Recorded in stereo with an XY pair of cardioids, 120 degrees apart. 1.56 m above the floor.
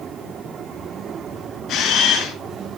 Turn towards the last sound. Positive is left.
turn(degrees=60)